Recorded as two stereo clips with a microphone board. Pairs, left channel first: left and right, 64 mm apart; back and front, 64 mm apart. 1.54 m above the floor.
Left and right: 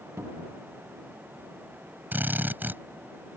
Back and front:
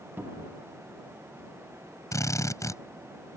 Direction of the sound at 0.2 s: 55° right.